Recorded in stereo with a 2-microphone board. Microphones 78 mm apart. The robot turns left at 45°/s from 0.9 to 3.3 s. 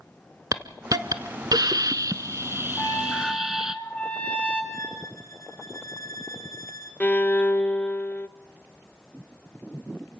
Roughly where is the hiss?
Ahead right.